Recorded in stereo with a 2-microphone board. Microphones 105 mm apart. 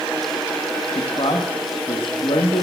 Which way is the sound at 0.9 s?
60° left (ahead or behind).